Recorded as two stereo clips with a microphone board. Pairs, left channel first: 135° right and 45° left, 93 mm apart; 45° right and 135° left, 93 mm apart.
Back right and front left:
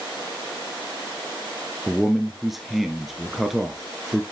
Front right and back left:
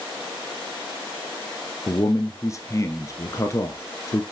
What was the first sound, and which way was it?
A man speaking, 40° right.